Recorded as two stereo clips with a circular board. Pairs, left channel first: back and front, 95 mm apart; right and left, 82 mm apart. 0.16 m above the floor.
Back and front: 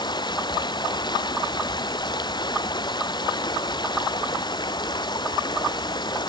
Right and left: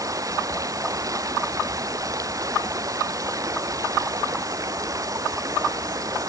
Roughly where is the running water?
Behind left.